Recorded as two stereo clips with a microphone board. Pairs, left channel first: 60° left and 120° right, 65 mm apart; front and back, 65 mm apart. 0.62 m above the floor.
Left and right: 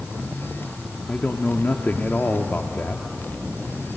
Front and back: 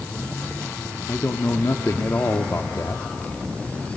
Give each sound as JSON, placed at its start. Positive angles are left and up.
{"t": 1.1, "sound": "a man speaking", "azimuth_deg": 15, "distance_m": 1.0}